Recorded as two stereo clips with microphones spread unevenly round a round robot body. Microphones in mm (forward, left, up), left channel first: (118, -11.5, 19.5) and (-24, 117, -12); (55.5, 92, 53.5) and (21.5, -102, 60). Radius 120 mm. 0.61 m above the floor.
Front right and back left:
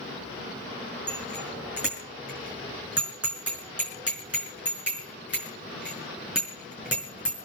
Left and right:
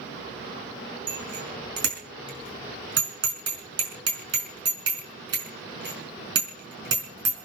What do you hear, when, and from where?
1.1 s a bicycle bell: 135° right, 5.5 m